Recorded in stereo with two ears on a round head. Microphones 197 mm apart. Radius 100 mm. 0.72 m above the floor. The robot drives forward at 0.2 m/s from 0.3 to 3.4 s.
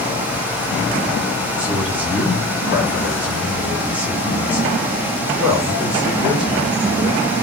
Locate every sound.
1.6 s a man speaking: 10° right (ahead or behind), 1.5 m; by 7.2 s 5° right (ahead or behind), 1.8 m